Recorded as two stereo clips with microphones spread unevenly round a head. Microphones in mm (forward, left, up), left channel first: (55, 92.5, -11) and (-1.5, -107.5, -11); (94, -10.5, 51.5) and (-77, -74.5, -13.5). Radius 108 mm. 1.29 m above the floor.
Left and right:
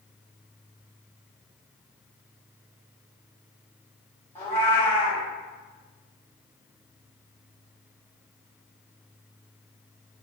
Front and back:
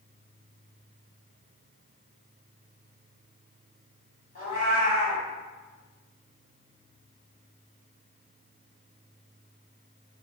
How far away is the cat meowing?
About 1.5 m.